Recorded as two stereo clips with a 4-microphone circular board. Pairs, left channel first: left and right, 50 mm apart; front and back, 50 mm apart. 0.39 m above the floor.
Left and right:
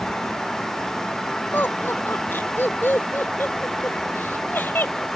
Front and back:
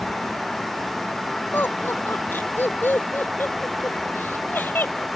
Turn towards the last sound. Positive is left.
turn(degrees=45)